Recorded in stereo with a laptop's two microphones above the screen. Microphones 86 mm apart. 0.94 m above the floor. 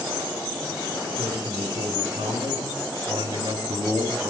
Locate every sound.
1.2 s a man speaking: 60° right (ahead or behind), 2.5 m; by 4.3 s 55° right (ahead or behind), 1.8 m